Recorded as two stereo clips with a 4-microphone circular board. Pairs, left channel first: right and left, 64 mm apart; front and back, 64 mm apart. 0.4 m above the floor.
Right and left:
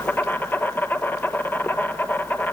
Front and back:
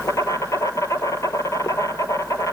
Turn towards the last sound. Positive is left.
turn(degrees=-30)